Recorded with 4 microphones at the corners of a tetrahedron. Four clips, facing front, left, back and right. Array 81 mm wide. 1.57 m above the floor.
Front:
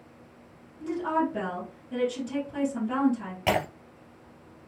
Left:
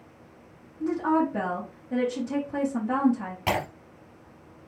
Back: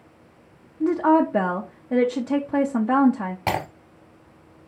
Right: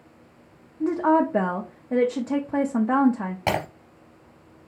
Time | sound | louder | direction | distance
0.8 | a woman speaking | right 4 dB, back 9 dB | 145° right | 0.7 m
3.5 | breaking glass | right 2 dB, even | 120° right | 1.8 m